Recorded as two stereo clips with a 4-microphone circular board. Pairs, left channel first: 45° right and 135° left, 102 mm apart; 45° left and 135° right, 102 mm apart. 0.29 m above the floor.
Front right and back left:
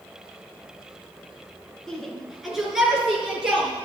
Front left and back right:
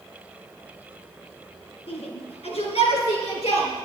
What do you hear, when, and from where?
1.9 s a shout: 40° left, 3 m; by 3.7 s 55° left, 4.5 m